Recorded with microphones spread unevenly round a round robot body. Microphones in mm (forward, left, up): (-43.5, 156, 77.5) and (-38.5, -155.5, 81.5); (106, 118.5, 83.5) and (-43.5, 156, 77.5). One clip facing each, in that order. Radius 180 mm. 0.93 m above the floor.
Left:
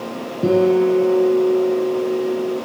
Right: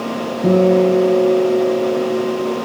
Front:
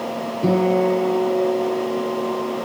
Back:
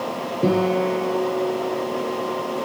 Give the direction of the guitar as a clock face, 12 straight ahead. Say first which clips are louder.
Right 2 dB, front 2 dB; 9 o'clock.